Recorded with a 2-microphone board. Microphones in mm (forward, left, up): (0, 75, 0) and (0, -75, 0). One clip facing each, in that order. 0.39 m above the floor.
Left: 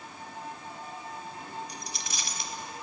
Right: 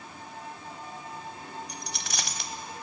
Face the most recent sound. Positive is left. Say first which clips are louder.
# right 1 dB
turn(degrees=-75)  # may be behind; listen again after turning